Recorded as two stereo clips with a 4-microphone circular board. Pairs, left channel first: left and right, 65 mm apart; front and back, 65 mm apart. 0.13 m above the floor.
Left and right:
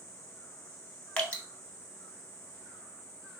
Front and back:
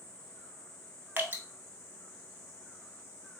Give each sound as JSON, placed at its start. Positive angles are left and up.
{"t": 1.2, "sound": "dripping", "azimuth_deg": 150, "distance_m": 0.7}